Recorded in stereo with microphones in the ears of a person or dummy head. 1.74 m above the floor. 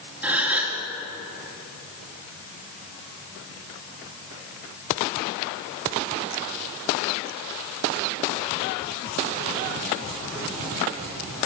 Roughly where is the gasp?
Centre.